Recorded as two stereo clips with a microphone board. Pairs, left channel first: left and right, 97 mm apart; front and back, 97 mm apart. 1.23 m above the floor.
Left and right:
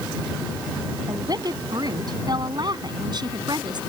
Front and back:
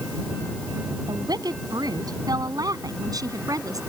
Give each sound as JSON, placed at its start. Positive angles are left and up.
{"t": 1.1, "sound": "a woman speaking", "azimuth_deg": -135}